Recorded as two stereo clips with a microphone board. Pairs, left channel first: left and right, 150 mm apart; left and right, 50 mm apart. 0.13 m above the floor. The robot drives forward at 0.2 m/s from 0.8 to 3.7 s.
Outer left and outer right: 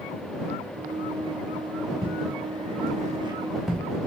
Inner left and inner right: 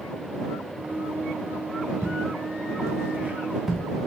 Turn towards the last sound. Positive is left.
turn(degrees=5)  # may be behind; listen again after turning